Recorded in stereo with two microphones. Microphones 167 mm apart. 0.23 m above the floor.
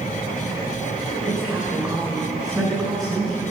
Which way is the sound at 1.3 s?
20° right (ahead or behind).